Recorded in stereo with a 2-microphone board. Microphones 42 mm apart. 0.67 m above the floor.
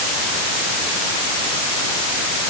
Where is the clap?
No clap in this recording.